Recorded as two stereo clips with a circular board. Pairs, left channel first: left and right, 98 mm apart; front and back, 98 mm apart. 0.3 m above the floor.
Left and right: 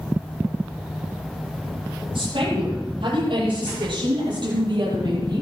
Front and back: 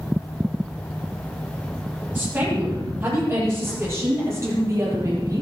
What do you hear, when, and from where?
2.1 s a woman speaking: 110° right, 9.5 m; by 5.4 s 125° right, 8.5 m